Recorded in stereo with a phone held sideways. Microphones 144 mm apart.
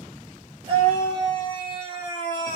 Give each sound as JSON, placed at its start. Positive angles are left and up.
{"t": 0.7, "sound": "a scream", "side_deg": -35, "distance_m": 5.0}